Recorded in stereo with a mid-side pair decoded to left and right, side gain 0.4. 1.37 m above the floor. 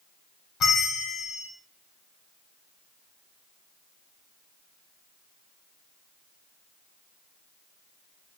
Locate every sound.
0.6 s a bell: 65° left, 0.9 m